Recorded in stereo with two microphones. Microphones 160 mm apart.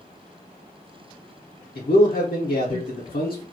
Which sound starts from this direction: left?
A man speaking, at 1.8 s.